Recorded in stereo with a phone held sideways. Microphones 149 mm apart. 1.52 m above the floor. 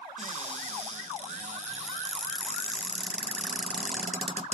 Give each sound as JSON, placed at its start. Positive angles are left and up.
{"t": 0.2, "sound": "a cupboard door", "side_deg": -50, "distance_m": 0.7}